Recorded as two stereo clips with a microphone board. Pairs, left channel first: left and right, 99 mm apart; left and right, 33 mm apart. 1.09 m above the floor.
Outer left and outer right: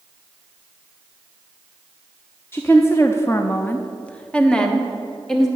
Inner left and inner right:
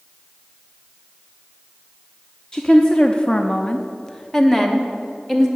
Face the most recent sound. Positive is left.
turn(degrees=5)  # may be behind; listen again after turning